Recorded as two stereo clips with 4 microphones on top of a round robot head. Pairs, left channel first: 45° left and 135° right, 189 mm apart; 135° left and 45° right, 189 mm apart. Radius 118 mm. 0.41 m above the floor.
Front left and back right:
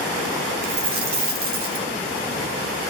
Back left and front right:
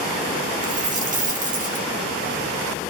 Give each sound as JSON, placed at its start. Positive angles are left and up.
{"t": 0.6, "sound": "a dropped coin", "azimuth_deg": -95, "distance_m": 1.0}